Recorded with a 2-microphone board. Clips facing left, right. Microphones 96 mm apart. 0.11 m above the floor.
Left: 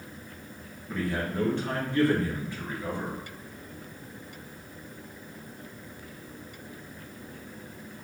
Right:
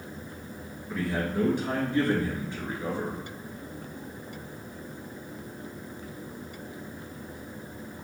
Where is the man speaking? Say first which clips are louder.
Right 1 dB; centre (ahead or behind), 1.6 m; by 3.2 s 30° right (ahead or behind), 1.9 m.